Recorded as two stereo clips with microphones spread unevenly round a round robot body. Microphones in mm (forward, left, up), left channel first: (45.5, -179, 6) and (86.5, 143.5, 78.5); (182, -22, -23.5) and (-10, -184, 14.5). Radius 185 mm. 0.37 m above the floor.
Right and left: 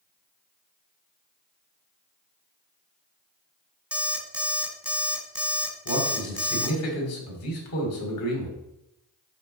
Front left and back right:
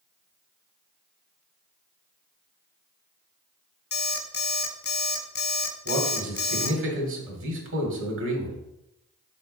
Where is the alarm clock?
5° right, 1.2 m.